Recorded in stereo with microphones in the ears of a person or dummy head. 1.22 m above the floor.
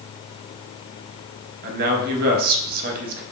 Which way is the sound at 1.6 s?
45° right (ahead or behind).